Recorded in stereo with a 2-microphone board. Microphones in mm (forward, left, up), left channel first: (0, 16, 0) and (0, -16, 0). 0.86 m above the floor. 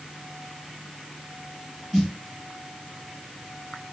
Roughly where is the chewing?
No chewing in this recording.